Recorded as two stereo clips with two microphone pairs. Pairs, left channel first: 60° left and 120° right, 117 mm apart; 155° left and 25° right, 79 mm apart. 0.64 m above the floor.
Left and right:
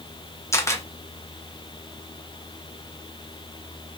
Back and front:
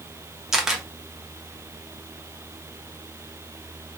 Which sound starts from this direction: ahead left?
A camera shutter, at 0.5 s.